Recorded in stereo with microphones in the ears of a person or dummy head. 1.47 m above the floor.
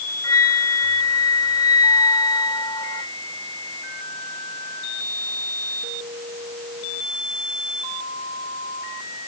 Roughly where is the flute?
Left.